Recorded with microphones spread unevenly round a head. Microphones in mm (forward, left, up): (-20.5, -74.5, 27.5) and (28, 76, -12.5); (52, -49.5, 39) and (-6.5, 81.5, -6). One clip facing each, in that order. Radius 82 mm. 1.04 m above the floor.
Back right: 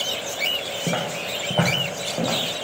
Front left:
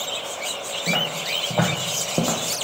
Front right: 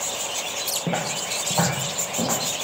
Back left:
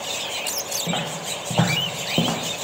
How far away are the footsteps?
About 1.6 m.